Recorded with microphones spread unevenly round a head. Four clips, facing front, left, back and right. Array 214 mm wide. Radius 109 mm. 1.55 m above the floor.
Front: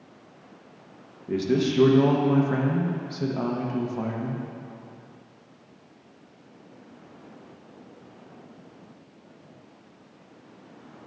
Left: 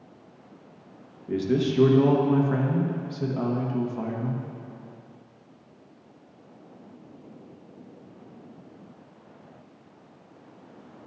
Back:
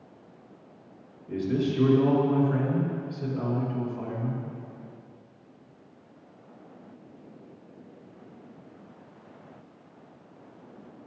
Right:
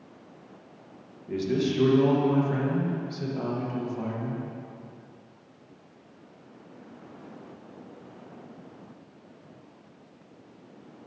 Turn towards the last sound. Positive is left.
turn(degrees=30)